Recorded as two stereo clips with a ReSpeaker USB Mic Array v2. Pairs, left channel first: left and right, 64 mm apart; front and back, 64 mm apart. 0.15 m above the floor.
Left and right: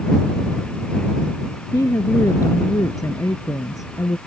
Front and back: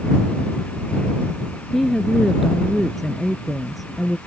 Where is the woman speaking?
90° left.